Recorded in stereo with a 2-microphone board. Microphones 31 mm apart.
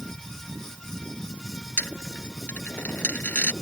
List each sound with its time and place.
1.8 s a dropped coin: 65° left (ahead or behind)